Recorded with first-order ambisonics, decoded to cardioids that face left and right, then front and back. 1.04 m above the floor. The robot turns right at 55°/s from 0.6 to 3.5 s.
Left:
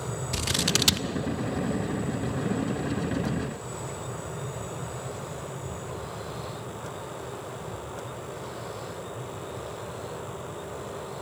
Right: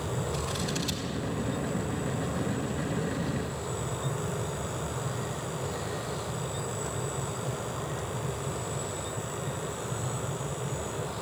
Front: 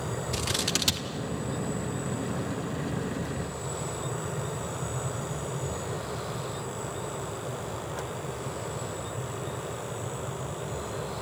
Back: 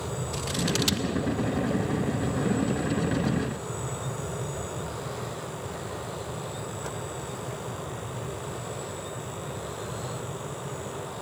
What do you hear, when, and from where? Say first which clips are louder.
0.3 s scissors: left 6 dB, front 1 dB; 75° left, 0.9 m; by 1.1 s 100° left, 0.9 m